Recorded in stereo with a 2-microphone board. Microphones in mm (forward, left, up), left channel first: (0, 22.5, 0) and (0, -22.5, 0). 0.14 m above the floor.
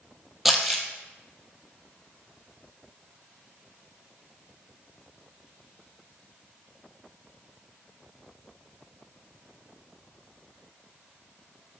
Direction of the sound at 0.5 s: Centre (ahead or behind).